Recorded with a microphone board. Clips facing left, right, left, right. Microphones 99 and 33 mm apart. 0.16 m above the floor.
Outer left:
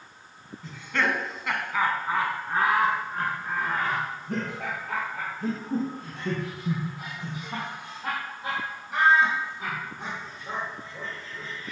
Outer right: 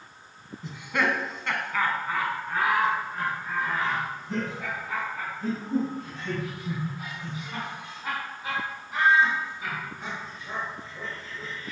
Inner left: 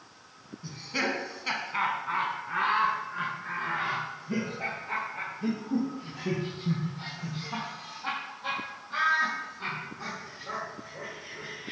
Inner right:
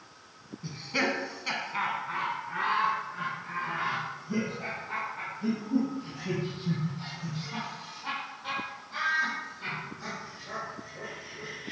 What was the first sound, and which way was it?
Laughter, 20° right (ahead or behind).